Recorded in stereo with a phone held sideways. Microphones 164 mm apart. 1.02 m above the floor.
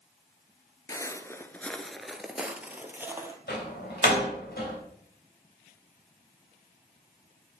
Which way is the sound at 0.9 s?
20° left (ahead or behind).